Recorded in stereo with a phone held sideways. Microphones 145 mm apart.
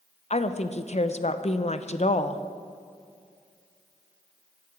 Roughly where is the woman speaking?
Left.